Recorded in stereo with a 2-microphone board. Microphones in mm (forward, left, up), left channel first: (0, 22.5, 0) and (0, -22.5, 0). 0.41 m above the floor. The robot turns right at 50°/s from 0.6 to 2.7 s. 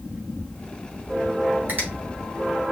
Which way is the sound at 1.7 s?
40° right (ahead or behind).